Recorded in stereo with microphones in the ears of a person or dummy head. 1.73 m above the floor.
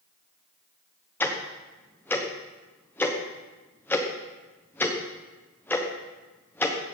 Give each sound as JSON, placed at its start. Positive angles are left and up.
{"t": 1.2, "sound": "ticking", "side_deg": 20, "distance_m": 1.1}